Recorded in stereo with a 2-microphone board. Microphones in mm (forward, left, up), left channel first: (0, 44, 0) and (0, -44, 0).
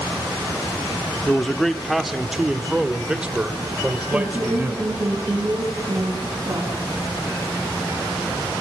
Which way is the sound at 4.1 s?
40° right (ahead or behind).